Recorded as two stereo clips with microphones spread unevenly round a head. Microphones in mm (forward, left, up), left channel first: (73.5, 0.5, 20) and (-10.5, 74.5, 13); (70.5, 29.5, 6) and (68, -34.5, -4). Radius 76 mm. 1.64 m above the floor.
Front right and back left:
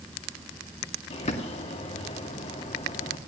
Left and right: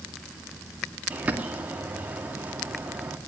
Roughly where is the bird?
Ahead right.